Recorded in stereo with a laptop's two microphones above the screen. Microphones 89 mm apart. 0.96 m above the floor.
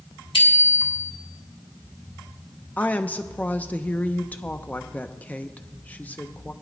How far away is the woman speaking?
About 0.7 m.